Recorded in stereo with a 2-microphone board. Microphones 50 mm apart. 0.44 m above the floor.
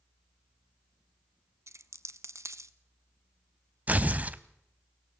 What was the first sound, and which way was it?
A dropped coin, 70° right (ahead or behind).